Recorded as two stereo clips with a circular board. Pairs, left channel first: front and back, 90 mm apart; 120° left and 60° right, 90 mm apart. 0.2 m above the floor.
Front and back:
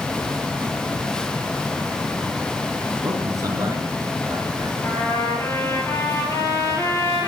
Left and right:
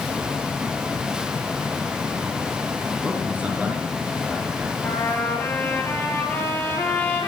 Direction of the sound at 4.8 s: 55° left.